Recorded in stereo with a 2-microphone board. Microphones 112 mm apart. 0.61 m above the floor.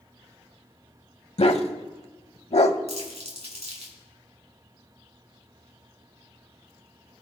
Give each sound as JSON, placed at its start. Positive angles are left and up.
{"t": 1.4, "sound": "a dog barking", "side_deg": 75, "distance_m": 0.8}
{"t": 2.9, "sound": "crumpling", "side_deg": -80, "distance_m": 3.5}